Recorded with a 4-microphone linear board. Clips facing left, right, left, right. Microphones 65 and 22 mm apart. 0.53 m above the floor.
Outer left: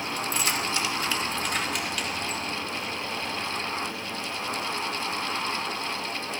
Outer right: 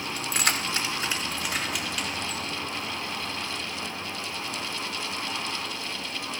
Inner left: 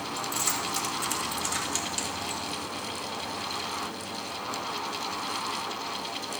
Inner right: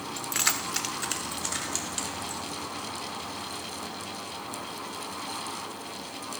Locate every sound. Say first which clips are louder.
0.2 s keys jangling: outer right 1 dB, inner right 3 dB; 65° right (ahead or behind), 0.8 m; by 2.5 s 5° left (ahead or behind), 2 m